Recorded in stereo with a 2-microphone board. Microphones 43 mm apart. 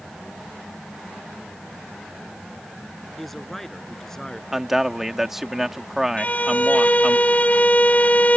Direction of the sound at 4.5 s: 10° right (ahead or behind).